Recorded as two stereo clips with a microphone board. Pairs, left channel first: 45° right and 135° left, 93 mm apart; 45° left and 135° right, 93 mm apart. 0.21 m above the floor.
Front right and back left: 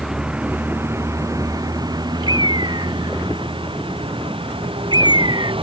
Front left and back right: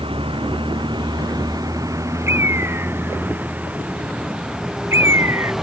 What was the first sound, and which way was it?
A vehicle, 140° right.